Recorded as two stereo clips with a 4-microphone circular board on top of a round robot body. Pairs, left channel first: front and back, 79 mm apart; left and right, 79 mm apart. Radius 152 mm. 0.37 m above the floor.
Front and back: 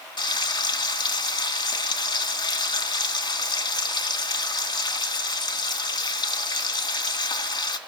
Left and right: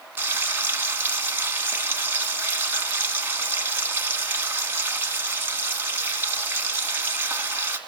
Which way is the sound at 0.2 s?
25° right.